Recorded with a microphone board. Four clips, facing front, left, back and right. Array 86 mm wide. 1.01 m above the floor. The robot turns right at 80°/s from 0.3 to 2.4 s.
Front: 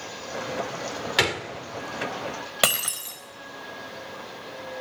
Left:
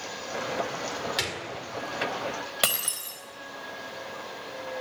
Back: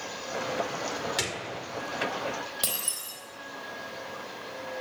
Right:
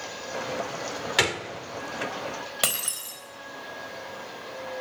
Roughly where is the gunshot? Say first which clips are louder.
Right 7 dB, front 8 dB; ahead right.